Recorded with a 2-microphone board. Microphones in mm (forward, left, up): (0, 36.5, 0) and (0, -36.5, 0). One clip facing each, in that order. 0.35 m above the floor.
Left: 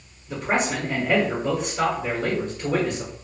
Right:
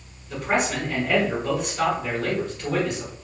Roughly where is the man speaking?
Centre.